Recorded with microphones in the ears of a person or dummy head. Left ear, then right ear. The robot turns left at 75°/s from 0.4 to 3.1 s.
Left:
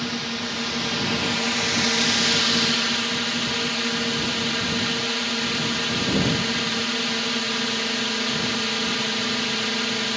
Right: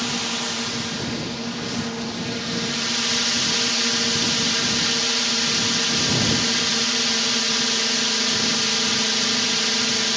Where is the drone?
160° right; by 10.2 s 5° right.